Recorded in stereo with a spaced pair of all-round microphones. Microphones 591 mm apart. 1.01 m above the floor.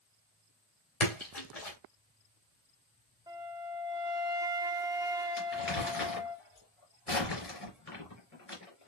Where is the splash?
85° left, 3 m.